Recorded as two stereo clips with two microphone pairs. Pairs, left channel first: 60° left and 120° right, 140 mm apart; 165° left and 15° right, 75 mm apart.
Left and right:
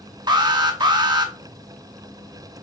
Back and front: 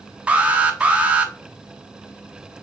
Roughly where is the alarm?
Right.